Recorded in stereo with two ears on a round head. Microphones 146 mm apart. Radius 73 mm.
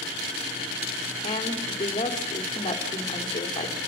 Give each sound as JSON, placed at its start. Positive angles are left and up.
{"t": 1.2, "sound": "a woman speaking", "side_deg": 25, "distance_m": 2.5}